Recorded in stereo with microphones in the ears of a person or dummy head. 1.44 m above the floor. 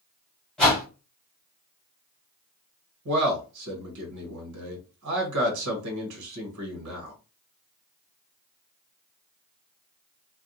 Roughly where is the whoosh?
Centre.